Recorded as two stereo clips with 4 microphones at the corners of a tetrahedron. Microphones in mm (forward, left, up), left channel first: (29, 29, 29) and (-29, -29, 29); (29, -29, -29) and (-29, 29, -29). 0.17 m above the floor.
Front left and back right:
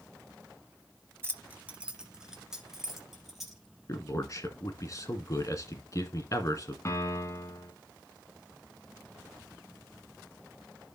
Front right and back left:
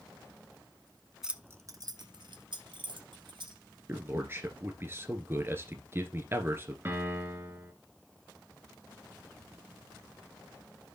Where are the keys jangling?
145° right, 0.7 m; by 3.6 s 140° left, 3 m.